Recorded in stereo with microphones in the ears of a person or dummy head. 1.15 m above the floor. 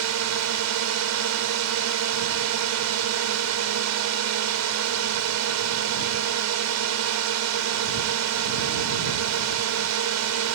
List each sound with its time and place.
0.0 s a drone: 80° right